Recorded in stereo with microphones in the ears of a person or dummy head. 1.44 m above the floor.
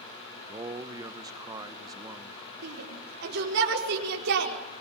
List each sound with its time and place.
0.4 s a man speaking: 20° right (ahead or behind), 1.0 m
2.6 s a shout: 65° right (ahead or behind), 4.5 m